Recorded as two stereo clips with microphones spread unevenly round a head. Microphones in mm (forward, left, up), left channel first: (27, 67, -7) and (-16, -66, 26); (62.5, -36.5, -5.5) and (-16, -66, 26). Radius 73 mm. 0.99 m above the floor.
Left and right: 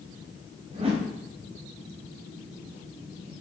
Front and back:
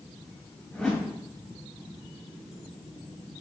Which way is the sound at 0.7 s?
60° right.